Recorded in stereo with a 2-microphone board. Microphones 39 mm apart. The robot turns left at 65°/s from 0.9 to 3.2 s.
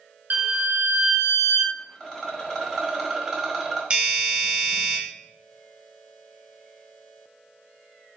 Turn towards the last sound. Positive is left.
turn(degrees=-25)  # may be behind; listen again after turning